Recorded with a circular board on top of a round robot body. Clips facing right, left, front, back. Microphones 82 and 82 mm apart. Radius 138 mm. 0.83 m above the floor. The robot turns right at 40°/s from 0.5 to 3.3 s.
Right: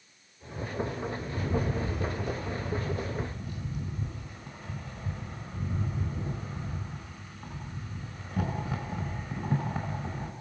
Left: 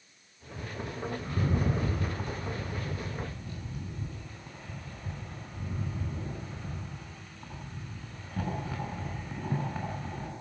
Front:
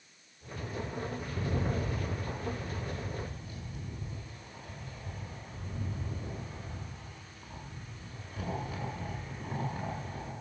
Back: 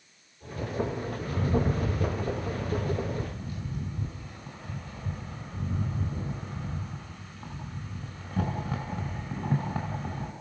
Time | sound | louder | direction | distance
1.2 | a rattle | left 1 dB, back 9 dB | 110° left | 6 m